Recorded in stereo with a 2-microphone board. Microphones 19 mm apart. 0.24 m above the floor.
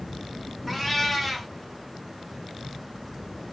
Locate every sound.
0.7 s a cat meowing: 5° right (ahead or behind), 0.7 m